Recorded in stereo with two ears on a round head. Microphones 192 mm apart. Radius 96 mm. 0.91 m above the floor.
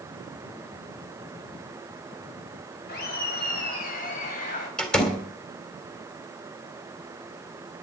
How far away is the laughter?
About 5 m.